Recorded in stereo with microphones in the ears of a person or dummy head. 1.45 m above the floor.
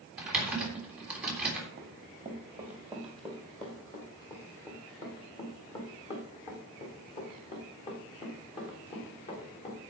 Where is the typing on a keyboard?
5° right (ahead or behind), 3.5 m.